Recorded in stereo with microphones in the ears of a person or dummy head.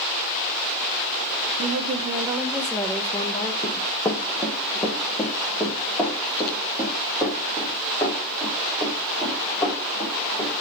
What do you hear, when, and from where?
1.6 s a woman speaking: 50° right (ahead or behind), 0.7 m; by 3.5 s 20° left (ahead or behind), 1.2 m
3.6 s running footsteps: 20° left (ahead or behind), 2.5 m; by 10.6 s 15° left (ahead or behind), 9.5 m